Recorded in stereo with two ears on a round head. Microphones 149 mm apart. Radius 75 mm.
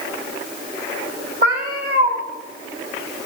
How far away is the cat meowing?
About 1.7 m.